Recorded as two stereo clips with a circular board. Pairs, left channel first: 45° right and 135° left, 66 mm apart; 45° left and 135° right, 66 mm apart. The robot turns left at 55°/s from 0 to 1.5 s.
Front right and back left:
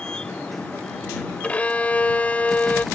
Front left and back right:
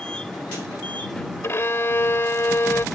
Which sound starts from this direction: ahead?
A violin, at 1.4 s.